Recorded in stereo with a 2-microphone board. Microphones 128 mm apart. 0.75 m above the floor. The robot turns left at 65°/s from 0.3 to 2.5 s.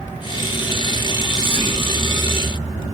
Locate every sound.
0.9 s whispering: 65° right (ahead or behind), 1.7 m; by 1.9 s 20° right (ahead or behind), 1.7 m